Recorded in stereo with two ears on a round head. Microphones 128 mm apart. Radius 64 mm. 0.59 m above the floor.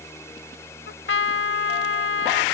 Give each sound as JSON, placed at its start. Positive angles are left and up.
{"t": 0.9, "sound": "a trumpet", "side_deg": 85}